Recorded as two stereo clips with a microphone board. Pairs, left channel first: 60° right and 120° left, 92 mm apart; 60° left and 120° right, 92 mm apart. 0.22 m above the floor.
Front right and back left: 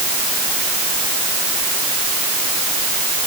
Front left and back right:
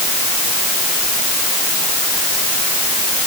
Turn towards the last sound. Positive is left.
No sound to turn to.